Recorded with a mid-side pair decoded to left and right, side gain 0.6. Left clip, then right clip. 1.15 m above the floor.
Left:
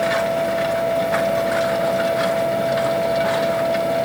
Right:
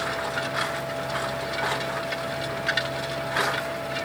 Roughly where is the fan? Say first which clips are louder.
Left 9 dB; ahead left.